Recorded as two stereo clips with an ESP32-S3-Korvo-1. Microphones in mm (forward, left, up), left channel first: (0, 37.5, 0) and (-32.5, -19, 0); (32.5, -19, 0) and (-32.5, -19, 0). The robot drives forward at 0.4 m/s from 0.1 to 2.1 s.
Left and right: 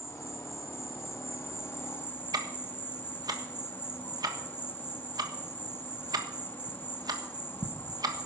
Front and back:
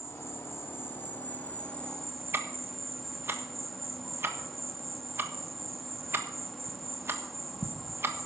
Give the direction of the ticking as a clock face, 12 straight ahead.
4 o'clock.